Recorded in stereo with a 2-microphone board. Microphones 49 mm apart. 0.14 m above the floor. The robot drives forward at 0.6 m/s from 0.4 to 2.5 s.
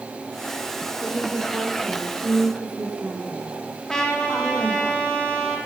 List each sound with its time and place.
1.0 s a woman speaking: 25° right (ahead or behind), 10 m
3.9 s a trumpet: 15° left (ahead or behind), 4.5 m